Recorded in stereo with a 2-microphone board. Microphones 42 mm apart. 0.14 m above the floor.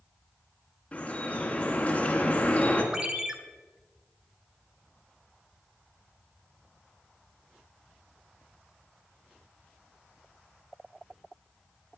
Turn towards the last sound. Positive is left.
turn(degrees=-15)  # may be behind; listen again after turning